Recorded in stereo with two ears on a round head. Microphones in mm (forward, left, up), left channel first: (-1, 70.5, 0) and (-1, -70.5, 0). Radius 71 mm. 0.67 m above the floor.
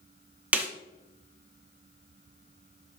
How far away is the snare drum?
About 0.9 m.